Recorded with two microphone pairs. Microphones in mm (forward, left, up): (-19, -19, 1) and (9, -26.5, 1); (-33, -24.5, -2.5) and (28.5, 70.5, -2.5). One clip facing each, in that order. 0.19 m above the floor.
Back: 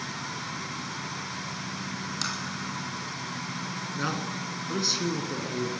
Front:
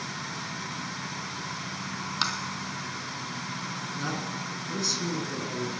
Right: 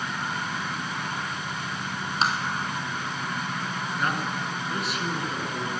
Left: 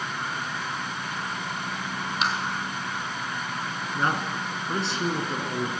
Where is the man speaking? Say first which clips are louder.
Back 3 dB, left 3 dB; 105° left, 1.9 m.